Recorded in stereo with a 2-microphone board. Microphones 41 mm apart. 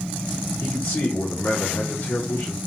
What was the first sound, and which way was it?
A man speaking, 75° left (ahead or behind).